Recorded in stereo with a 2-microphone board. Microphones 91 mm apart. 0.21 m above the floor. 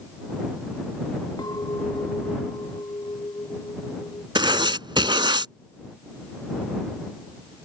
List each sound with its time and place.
1.4 s a clink: 45° left (ahead or behind)
4.3 s writing: 60° right (ahead or behind)